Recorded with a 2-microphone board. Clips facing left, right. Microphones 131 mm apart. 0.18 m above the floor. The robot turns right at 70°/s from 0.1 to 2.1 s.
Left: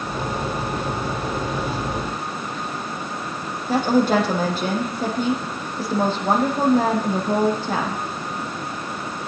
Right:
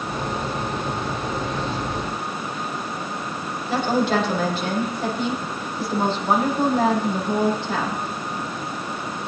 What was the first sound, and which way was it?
A woman speaking, 45° left (ahead or behind).